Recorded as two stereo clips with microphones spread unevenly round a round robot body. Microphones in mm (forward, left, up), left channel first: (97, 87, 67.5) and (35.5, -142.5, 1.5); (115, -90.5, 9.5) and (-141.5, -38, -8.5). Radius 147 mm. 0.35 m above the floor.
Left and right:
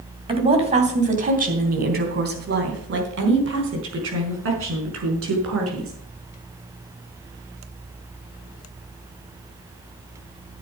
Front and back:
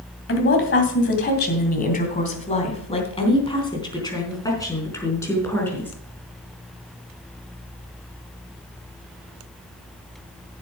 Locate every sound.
0.3 s a woman speaking: 50° right, 2.5 m; by 5.9 s 95° right, 5 m